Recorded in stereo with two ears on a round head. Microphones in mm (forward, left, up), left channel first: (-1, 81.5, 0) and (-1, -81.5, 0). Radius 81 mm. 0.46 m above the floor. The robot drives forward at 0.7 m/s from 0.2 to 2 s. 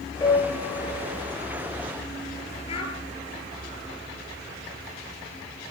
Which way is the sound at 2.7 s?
30° left (ahead or behind).